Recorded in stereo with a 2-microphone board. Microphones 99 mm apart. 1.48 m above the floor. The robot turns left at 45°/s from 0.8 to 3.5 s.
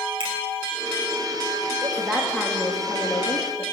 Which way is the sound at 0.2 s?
60° right (ahead or behind).